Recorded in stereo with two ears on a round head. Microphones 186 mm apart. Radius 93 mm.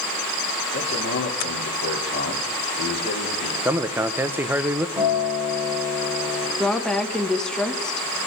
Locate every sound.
0.7 s a man speaking: 80° left, 3.5 m
3.6 s a man speaking: 10° right (ahead or behind), 0.5 m
5.0 s a guitar: 10° right (ahead or behind), 4 m
6.6 s a woman speaking: 5° left (ahead or behind), 1.1 m